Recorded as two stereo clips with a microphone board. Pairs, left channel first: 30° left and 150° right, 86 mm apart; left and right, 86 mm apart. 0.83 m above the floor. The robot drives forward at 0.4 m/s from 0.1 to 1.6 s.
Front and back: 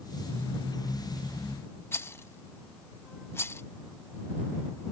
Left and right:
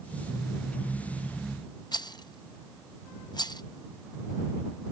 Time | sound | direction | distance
1.9 | a rattle | 85° left | ?